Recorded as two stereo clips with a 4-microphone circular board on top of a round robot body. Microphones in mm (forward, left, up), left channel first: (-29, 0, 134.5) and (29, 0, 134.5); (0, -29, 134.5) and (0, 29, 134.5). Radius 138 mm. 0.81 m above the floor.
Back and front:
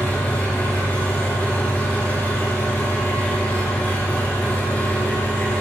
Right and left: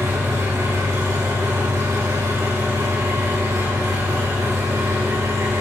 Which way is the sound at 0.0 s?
120° left.